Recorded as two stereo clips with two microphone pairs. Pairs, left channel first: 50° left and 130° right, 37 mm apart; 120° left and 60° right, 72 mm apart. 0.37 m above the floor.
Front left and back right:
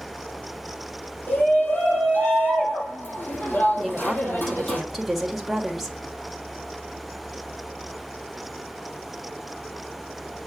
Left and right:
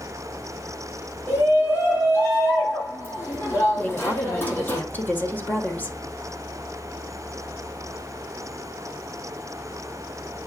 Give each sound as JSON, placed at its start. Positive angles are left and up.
{"t": 1.3, "sound": "a shout", "azimuth_deg": 65, "distance_m": 5.5}
{"t": 3.8, "sound": "a woman speaking", "azimuth_deg": 150, "distance_m": 1.3}